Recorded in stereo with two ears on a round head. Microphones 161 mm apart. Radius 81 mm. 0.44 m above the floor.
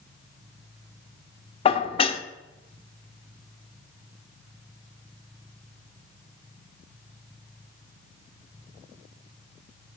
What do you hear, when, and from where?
1.6 s dishes clattering: 30° left (ahead or behind), 0.7 m